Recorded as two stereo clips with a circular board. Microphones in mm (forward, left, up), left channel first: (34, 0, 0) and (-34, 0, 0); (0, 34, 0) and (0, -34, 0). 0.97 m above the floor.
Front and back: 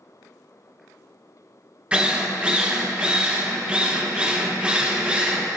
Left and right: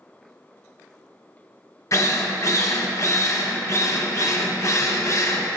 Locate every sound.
1.9 s a drill: 110° left, 0.8 m